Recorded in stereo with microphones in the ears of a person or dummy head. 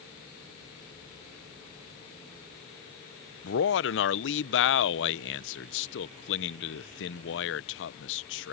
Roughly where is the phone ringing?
I don't hear a phone ringing.